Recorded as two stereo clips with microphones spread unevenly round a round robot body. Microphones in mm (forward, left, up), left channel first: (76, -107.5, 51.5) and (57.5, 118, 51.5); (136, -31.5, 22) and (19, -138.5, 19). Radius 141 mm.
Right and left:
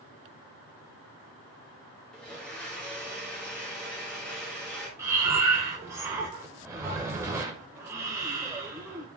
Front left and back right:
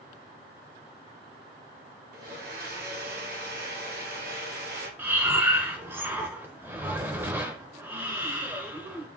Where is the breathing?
160° left, 0.7 m.